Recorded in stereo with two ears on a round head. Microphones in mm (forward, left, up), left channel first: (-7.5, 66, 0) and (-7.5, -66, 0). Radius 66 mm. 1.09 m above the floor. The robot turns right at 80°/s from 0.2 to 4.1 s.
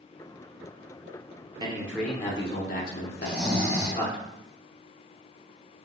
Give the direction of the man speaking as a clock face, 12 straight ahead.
1 o'clock.